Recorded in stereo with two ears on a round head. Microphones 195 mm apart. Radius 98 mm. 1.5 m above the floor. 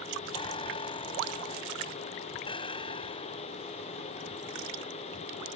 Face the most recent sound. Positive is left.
turn(degrees=25)  # may be behind; listen again after turning